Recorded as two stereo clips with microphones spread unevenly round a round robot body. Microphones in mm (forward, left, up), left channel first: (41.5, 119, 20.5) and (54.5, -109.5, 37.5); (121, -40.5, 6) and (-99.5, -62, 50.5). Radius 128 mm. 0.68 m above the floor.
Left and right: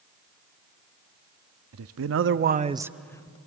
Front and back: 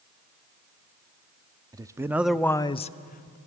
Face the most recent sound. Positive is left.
turn(degrees=30)